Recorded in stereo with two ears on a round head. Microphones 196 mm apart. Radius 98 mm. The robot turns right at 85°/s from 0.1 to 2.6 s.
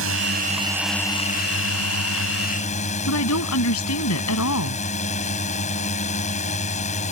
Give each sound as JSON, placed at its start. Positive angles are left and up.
{"t": 0.0, "sound": "a drone", "azimuth_deg": -65}
{"t": 3.1, "sound": "a woman speaking", "side_deg": 80}